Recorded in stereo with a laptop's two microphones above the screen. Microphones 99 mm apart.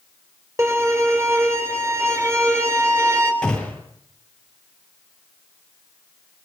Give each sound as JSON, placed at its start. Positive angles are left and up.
{"t": 0.6, "sound": "a violin", "side_deg": -30, "distance_m": 3.5}
{"t": 3.4, "sound": "a gunshot", "side_deg": 10, "distance_m": 8.5}